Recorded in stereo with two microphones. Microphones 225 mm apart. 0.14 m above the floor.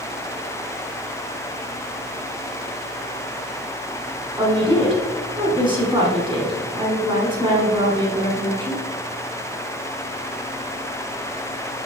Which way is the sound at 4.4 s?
20° right (ahead or behind).